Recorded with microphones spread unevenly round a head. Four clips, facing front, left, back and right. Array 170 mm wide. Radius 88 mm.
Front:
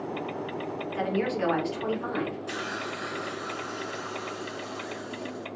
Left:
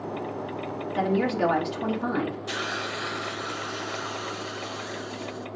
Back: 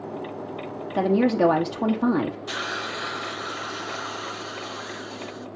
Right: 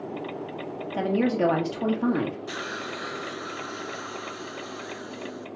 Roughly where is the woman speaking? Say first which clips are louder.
Right 1 dB, back 8 dB; behind.